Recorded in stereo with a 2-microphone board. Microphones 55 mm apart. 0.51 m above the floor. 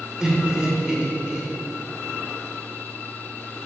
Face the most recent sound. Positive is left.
turn(degrees=-15)  # may be behind; listen again after turning